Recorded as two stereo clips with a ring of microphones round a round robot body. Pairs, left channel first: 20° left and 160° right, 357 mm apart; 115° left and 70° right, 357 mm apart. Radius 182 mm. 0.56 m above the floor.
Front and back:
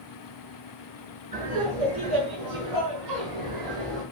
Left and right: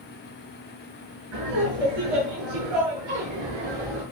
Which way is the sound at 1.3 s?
85° right.